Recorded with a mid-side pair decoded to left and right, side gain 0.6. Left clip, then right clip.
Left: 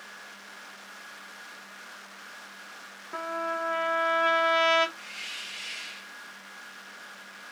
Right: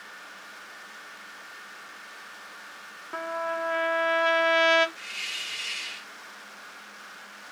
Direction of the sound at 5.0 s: 35° right.